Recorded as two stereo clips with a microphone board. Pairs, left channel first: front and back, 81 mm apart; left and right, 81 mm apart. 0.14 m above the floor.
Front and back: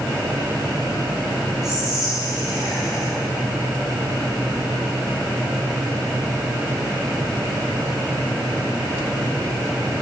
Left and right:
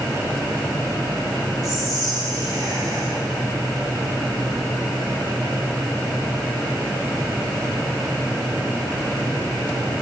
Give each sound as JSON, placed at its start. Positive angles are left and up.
{"t": 1.6, "sound": "whispering", "azimuth_deg": -100, "distance_m": 6.0}